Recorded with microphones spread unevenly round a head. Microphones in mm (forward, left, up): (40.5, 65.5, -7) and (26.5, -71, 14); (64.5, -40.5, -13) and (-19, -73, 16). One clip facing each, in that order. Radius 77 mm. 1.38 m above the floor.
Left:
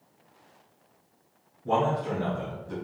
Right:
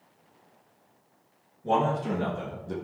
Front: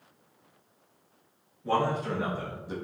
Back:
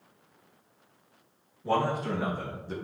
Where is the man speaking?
75° right, 2.5 m; by 2.8 s 45° right, 1.4 m.